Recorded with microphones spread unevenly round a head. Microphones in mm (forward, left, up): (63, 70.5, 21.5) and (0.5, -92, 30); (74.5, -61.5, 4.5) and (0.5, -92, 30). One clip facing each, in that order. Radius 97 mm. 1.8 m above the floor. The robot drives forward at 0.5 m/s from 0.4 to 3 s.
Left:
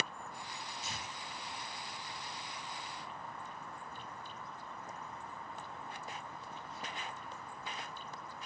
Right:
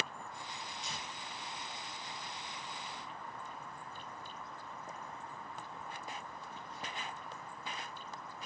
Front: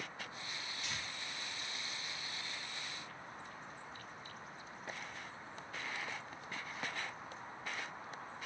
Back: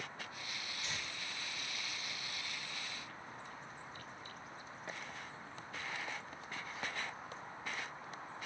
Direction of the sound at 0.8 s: 155° left.